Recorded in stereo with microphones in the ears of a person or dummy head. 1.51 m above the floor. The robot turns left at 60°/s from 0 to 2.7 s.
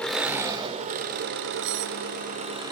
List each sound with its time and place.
0.0 s an engine running: 5° left, 1.9 m; by 2.7 s 160° right, 1.9 m
1.6 s cutlery clinking: 60° right (ahead or behind), 1.0 m; by 1.9 s 55° right (ahead or behind), 1.0 m